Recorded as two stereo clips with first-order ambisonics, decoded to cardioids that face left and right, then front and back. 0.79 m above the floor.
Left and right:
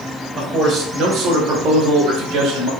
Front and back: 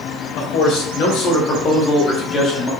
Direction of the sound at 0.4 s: 30° right.